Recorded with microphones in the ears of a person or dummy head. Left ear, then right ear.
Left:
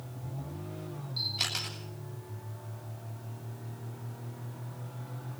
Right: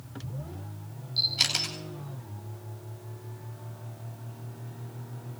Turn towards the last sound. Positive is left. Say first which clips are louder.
# right 6 dB
turn(degrees=-20)  # may be behind; listen again after turning